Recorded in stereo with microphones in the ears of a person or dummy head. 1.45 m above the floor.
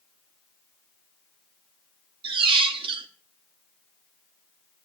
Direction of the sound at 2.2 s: 35° right (ahead or behind).